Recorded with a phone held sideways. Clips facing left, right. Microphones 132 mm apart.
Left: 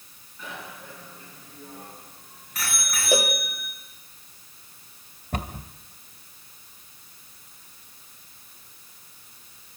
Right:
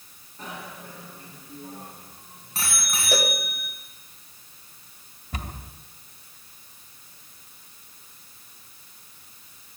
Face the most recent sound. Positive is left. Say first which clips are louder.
# left 5 dB
turn(degrees=55)  # may be behind; listen again after turning